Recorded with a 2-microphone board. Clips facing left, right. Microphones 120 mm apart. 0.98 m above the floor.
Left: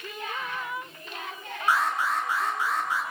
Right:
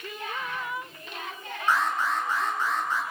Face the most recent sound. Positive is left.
turn(degrees=15)  # may be behind; listen again after turning